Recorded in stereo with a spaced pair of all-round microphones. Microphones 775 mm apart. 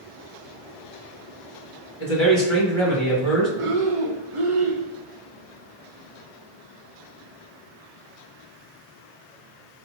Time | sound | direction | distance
2.0 | a man speaking | 35° left (ahead or behind) | 1.7 m
3.6 | breathing | 45° right (ahead or behind) | 0.6 m